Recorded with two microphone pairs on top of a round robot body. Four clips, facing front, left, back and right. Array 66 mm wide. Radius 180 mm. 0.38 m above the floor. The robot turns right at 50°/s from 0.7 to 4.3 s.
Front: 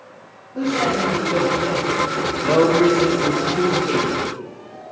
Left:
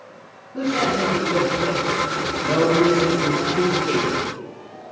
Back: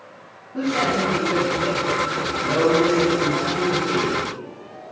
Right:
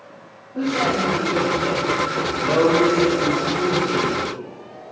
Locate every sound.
0.5 s a man speaking: 150° left, 4 m; by 2.0 s 145° right, 4 m
2.4 s a man speaking: 20° right, 2.5 m; by 4.8 s 75° left, 2.5 m